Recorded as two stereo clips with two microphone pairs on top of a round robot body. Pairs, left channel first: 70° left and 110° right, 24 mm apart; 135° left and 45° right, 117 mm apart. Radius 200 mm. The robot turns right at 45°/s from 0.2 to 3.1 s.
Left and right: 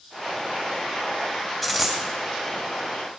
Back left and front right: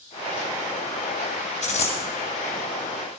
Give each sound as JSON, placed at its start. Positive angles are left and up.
{"t": 1.6, "sound": "a dropped coin", "azimuth_deg": 160, "distance_m": 2.5}